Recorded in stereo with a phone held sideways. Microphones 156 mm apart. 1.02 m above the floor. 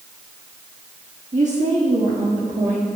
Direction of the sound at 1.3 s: 55° right (ahead or behind).